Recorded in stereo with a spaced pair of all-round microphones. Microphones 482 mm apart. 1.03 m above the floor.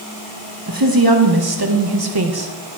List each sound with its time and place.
0.7 s a woman speaking: 45° right (ahead or behind), 1.5 m; by 2.5 s 55° right (ahead or behind), 1.1 m